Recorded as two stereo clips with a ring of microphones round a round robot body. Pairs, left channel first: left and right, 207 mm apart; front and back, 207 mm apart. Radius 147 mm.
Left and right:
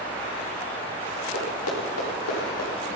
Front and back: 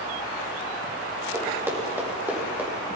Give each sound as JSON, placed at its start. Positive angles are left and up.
{"t": 1.3, "sound": "running footsteps", "azimuth_deg": 105, "distance_m": 6.5}